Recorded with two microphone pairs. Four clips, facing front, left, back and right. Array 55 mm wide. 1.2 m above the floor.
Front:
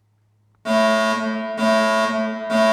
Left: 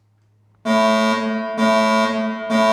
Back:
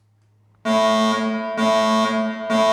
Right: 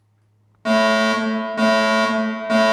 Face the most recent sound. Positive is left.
turn(degrees=-145)